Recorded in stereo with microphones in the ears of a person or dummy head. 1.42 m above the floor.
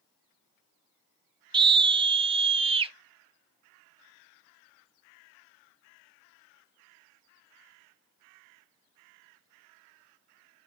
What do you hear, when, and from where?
1.5 s a scream: 25° right (ahead or behind), 1.4 m; by 2.9 s 35° right (ahead or behind), 2 m